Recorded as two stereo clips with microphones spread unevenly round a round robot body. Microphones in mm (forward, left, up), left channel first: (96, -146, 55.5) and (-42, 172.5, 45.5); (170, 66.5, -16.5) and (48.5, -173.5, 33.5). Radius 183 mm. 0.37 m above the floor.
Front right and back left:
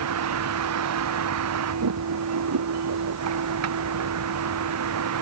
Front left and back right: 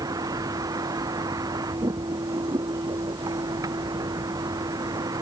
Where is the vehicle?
160° left.